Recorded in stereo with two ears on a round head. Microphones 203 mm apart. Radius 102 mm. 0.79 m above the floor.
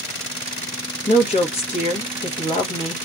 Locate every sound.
1.1 s a woman speaking: 25° left (ahead or behind), 0.9 m